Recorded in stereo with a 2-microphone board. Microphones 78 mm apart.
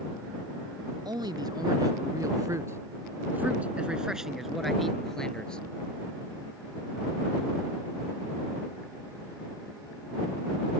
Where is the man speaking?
65° right (ahead or behind); by 5.6 s 10° left (ahead or behind).